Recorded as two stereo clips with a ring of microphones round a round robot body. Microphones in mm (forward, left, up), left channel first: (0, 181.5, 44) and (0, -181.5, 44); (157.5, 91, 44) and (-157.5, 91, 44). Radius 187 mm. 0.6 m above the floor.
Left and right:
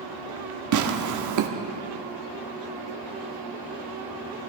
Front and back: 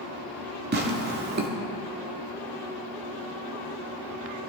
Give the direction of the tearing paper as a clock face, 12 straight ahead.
4 o'clock.